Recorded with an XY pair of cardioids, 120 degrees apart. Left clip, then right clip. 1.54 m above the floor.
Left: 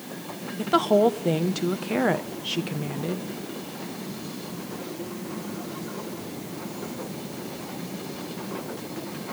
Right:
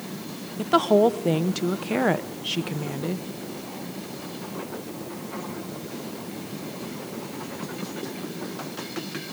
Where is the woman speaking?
10° right, 0.9 m.